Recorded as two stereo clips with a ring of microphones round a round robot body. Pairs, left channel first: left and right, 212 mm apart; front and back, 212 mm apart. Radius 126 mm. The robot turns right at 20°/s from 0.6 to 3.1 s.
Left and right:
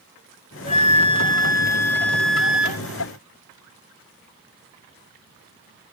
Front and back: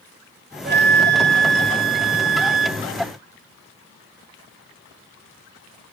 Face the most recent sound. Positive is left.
turn(degrees=-165)